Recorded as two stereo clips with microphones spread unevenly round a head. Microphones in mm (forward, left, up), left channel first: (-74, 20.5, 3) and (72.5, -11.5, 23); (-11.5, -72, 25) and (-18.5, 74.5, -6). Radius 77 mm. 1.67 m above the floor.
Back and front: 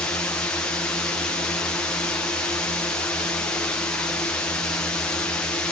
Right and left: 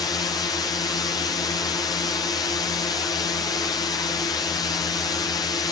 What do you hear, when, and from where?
0.0 s a drone: 140° right